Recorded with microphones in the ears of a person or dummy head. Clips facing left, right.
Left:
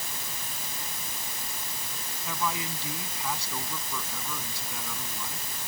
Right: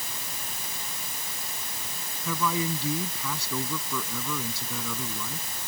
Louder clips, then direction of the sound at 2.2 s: Right 5 dB; 85° right.